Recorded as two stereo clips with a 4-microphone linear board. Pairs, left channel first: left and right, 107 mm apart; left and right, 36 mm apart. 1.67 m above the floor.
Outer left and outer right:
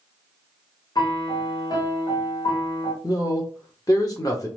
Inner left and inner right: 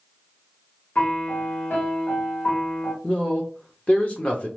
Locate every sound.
0.9 s a piano: 40° left (ahead or behind), 0.8 m
3.0 s a man speaking: 35° left (ahead or behind), 0.8 m